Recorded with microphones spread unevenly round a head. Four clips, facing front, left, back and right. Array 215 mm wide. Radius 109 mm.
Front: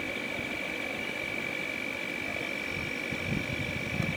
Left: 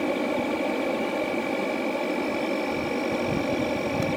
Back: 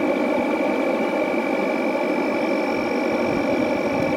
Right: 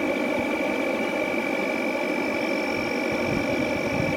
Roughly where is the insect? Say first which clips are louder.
Right 1 dB, back 17 dB; behind.